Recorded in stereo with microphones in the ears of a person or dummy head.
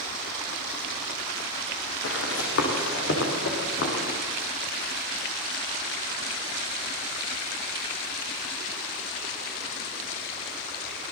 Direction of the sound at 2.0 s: 80° left.